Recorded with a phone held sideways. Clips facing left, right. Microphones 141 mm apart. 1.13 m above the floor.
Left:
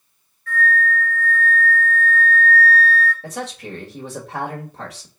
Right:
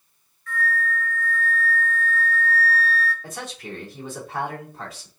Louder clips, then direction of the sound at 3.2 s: Left 5 dB; 75° left (ahead or behind).